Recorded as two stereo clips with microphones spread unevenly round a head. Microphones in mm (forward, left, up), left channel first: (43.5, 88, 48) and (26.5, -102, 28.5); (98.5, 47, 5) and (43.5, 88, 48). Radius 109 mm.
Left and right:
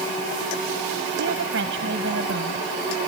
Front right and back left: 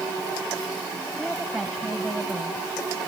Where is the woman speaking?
135° right.